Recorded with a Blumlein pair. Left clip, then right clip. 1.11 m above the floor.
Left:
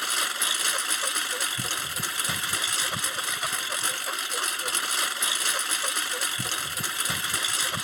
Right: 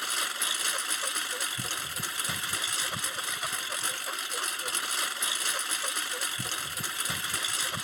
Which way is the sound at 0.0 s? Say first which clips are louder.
Left 4 dB; 10° left.